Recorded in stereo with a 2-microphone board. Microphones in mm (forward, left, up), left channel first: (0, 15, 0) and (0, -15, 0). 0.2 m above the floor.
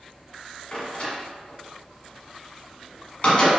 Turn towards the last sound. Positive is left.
turn(degrees=45)  # may be behind; listen again after turning